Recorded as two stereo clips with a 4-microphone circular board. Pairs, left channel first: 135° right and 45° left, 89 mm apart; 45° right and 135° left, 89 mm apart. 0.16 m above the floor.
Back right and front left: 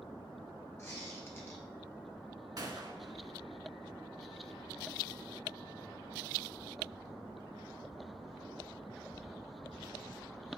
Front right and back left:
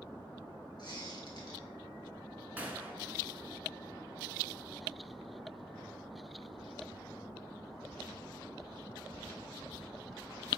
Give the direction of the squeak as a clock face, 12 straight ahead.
3 o'clock.